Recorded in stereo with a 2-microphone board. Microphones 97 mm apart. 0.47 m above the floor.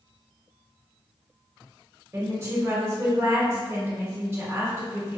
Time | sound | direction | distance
2.1 | a woman speaking | 30° right (ahead or behind) | 1.1 m